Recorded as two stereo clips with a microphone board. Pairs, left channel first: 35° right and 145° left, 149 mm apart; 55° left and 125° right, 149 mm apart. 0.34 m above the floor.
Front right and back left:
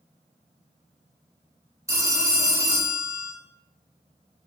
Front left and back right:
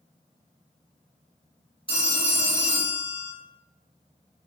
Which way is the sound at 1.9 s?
85° left.